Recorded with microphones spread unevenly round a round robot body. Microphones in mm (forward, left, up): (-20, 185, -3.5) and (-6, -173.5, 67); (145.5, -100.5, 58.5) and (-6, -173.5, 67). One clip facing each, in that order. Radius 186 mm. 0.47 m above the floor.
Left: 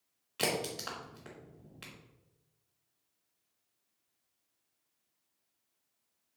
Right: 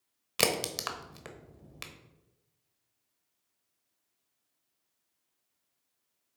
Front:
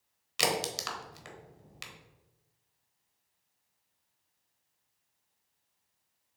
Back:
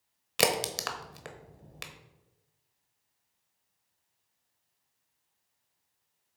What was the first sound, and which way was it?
A crack, 115° right.